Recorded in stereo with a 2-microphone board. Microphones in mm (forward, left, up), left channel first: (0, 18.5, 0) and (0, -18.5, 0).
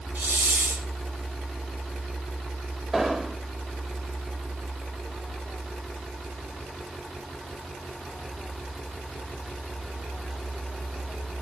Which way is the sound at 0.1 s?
75° right (ahead or behind).